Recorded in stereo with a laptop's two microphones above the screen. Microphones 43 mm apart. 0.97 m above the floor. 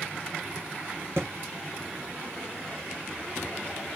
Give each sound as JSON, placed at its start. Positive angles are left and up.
{"t": 1.2, "sound": "a thud", "side_deg": -75, "distance_m": 3.0}